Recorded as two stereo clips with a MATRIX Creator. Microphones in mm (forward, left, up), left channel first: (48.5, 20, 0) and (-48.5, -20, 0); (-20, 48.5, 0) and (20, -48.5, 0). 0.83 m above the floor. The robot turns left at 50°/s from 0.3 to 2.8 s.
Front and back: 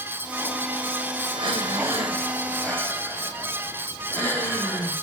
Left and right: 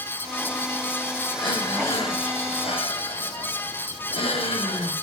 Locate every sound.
1.3 s breathing: 170° left, 3 m; by 4.9 s 95° left, 3 m